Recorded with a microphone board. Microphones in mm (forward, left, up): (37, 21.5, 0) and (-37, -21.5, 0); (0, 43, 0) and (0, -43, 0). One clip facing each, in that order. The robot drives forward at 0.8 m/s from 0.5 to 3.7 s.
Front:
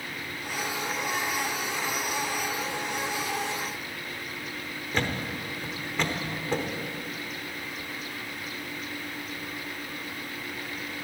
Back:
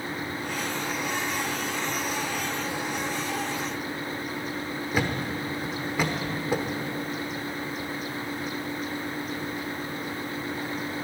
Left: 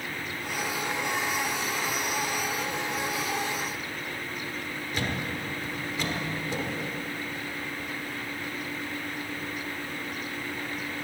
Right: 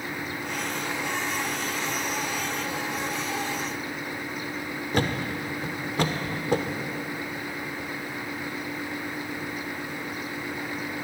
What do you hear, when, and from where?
4.9 s a thud: 70° right, 1.0 m